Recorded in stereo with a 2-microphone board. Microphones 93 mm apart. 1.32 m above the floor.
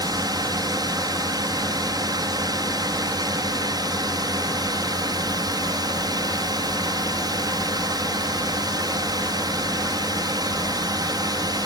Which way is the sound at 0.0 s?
45° right (ahead or behind).